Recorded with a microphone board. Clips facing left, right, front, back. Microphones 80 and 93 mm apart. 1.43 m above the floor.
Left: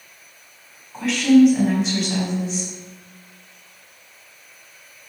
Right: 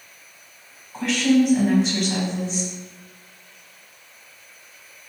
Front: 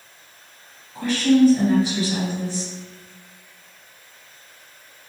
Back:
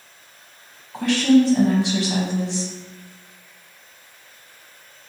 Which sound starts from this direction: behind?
A woman speaking, at 0.9 s.